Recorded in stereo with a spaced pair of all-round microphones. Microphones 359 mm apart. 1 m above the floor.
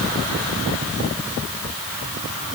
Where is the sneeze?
I don't hear a sneeze.